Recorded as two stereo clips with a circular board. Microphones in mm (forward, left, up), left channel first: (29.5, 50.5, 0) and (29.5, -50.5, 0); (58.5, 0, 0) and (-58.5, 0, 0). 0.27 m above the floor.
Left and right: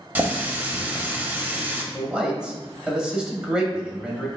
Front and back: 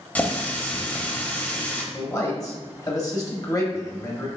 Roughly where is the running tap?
Ahead right.